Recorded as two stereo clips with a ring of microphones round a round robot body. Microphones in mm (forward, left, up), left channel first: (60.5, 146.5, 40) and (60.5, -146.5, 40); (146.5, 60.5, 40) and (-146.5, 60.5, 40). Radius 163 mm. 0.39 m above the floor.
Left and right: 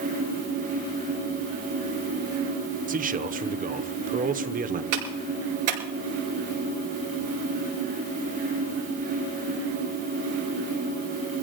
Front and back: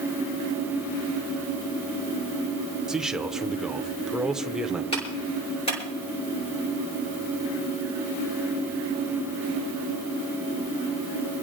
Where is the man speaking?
95° right, 0.9 m.